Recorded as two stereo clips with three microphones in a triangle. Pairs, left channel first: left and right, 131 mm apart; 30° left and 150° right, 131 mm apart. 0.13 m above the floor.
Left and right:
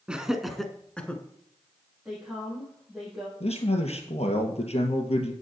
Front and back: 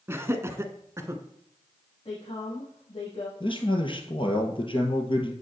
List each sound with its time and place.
0.1 s laughter: 155° right, 1.2 m; by 1.2 s 160° left, 1.4 m
2.0 s a woman speaking: 5° right, 5.5 m
3.4 s a man speaking: 70° left, 2.5 m